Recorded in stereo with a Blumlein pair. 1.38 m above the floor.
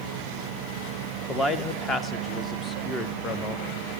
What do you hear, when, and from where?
1.3 s a man speaking: 15° left, 1.6 m